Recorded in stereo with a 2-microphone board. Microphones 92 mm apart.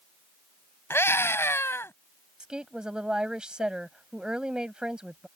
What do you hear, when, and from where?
0.9 s a scream: 25° left (ahead or behind)
2.4 s a woman speaking: 10° right (ahead or behind)